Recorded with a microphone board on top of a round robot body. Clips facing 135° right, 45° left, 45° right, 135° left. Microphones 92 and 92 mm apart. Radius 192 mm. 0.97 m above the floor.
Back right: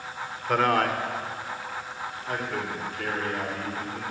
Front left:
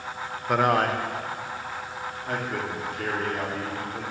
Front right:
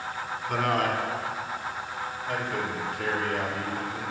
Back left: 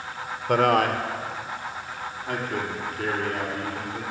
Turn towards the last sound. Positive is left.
turn(degrees=90)